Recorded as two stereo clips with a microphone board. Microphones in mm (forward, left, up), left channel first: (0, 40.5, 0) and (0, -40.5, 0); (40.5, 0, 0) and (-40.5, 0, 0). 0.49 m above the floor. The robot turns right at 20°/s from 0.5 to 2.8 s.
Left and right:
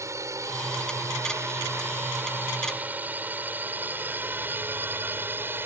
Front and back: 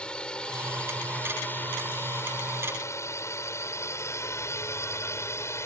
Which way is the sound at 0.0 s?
70° right.